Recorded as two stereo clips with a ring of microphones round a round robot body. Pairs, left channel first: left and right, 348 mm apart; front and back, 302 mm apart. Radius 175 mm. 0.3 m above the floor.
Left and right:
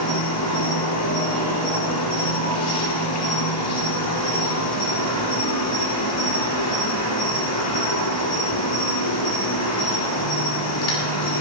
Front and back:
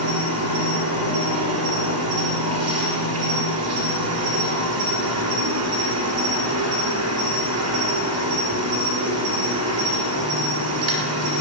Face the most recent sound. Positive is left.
turn(degrees=140)